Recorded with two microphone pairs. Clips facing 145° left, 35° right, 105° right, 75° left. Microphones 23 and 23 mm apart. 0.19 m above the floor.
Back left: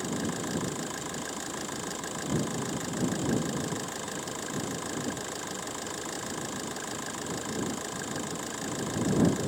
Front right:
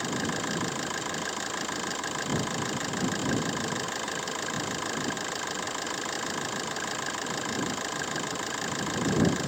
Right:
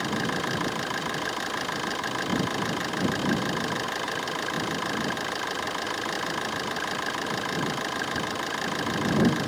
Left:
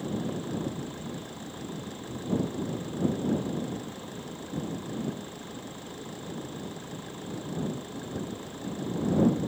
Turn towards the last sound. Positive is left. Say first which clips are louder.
# front right 2 dB, right 6 dB
turn(degrees=-90)